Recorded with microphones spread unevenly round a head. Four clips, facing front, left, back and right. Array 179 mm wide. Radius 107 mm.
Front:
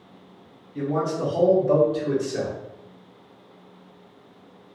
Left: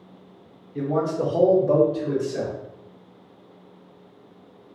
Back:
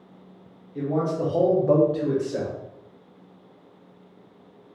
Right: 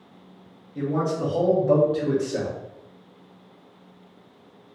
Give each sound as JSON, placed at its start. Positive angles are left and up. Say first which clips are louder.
{"t": 0.8, "sound": "a man speaking", "louder": "left 1 dB, even", "azimuth_deg": 105, "distance_m": 1.4}